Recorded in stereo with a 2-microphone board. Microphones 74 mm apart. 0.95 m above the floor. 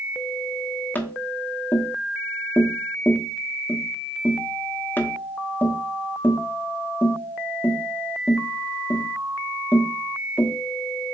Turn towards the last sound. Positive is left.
turn(degrees=25)  # may be behind; listen again after turning